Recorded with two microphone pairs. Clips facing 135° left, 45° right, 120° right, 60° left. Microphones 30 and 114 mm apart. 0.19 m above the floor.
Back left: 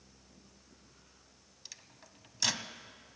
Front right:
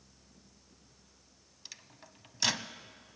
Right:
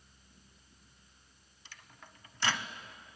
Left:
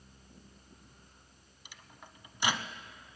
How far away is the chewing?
I don't hear chewing.